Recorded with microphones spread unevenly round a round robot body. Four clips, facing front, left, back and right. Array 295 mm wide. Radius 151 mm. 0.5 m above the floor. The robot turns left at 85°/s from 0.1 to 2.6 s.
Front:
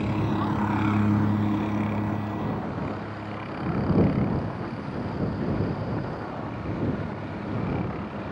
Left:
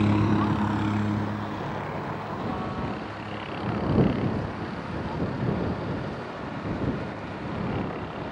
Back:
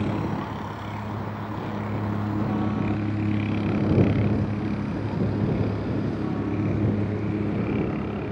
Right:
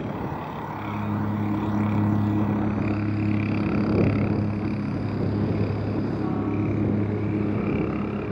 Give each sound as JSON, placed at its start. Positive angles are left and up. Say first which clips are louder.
{"t": 0.0, "sound": "a helicopter", "louder": "left 7 dB, front 1 dB", "azimuth_deg": 85}